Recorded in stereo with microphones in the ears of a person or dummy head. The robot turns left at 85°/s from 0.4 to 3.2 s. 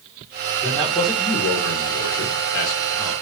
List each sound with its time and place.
0.6 s a man speaking: 175° right, 1.5 m; by 3.1 s 25° right, 1.5 m